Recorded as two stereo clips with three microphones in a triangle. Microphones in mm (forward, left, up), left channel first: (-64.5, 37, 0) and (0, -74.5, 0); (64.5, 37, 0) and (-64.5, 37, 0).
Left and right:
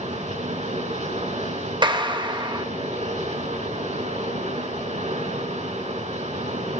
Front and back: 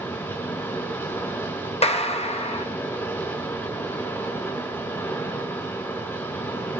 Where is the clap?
15° right, 1.0 m.